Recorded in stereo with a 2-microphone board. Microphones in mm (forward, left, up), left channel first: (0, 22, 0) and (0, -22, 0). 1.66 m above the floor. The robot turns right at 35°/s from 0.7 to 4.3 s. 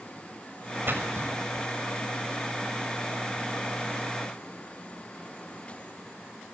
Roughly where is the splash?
Right.